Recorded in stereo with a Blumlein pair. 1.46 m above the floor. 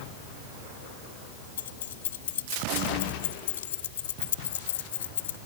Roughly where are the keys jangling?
Ahead left.